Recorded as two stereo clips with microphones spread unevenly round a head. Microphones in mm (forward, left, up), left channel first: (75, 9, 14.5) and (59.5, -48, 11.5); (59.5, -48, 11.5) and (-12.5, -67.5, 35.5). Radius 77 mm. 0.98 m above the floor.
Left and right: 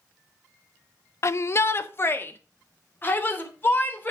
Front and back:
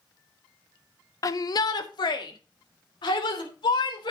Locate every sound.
1.2 s a shout: 35° left, 0.8 m; by 4.1 s 20° left, 4 m